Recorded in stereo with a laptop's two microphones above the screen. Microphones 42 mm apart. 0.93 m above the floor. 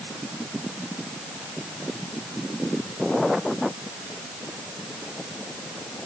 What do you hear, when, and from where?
Only background noise.